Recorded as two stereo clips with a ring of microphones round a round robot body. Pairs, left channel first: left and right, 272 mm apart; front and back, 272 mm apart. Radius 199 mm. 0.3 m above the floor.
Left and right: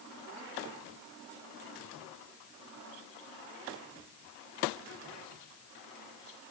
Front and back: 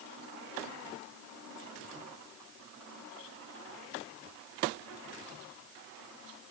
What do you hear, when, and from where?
Only background noise.